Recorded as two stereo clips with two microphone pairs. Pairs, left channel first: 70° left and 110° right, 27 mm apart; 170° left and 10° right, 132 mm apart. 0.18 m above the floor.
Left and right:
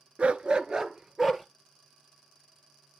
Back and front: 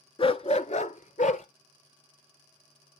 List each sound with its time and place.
0.2 s a dog barking: 145° right, 0.6 m; by 1.4 s 170° left, 1.0 m